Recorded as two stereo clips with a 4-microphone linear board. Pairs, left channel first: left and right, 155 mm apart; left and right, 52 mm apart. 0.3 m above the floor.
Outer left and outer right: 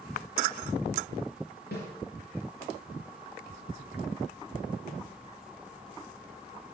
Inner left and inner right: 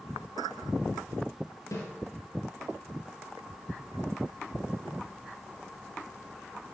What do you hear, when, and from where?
1.7 s a snare drum: 75° left (ahead or behind), 4 m